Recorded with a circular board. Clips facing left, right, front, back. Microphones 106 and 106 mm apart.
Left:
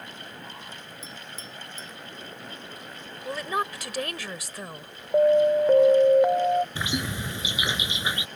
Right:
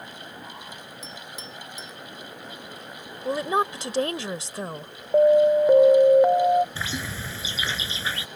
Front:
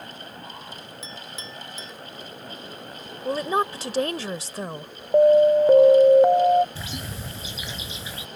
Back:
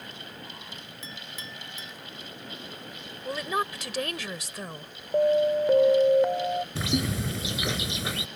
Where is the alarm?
20° right.